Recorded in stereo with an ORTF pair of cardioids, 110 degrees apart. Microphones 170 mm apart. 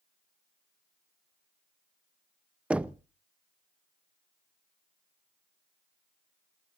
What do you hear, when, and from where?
2.7 s knocking: 5° right, 0.6 m